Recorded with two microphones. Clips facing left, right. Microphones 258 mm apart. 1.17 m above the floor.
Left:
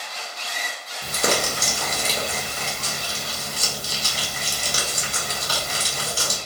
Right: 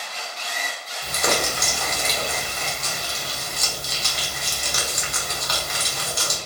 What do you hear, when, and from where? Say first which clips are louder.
1.0 s crumpling: left 1 dB; 35° left (ahead or behind), 0.7 m